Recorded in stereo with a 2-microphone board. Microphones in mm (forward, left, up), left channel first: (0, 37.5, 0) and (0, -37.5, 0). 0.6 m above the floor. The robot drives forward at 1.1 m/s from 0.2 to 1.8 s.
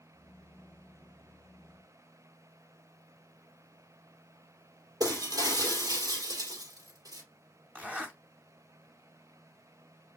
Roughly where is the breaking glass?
Right.